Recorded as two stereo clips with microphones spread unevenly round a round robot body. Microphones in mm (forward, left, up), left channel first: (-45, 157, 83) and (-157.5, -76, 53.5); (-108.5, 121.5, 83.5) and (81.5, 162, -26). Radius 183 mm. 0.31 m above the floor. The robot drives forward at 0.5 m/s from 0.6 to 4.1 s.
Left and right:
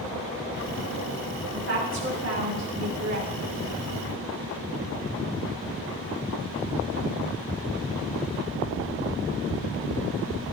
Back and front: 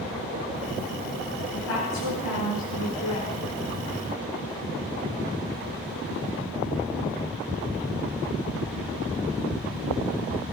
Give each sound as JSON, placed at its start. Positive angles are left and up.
{"t": 1.5, "sound": "a woman speaking", "azimuth_deg": -135, "distance_m": 5.0}